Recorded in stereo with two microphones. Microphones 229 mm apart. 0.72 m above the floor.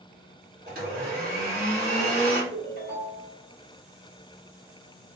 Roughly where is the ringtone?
Right.